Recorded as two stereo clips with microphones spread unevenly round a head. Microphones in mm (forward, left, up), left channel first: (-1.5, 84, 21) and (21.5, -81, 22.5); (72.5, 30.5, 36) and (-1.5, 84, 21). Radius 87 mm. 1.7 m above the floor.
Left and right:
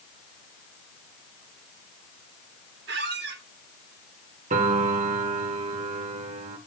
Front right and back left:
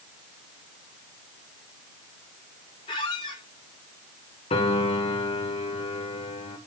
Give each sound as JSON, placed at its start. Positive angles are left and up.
{"t": 2.9, "sound": "a squeak", "azimuth_deg": -70, "distance_m": 1.4}
{"t": 4.5, "sound": "a piano", "azimuth_deg": -35, "distance_m": 1.6}